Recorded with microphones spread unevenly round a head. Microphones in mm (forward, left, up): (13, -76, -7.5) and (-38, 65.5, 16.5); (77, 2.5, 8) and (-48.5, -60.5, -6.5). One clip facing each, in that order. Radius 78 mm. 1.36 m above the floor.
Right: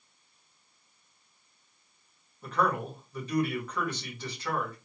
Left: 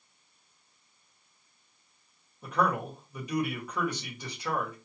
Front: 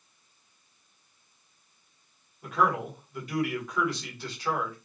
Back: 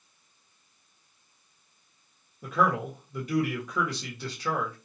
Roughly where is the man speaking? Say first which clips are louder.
Even, back 1 dB; behind.